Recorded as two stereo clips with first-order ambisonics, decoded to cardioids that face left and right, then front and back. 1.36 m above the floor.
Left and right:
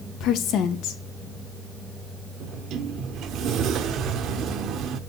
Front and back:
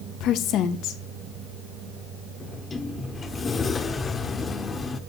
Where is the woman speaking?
45° left, 1.9 m.